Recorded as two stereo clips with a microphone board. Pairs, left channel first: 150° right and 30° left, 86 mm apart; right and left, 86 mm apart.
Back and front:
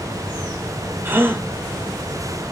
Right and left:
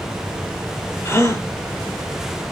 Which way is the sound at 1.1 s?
35° right.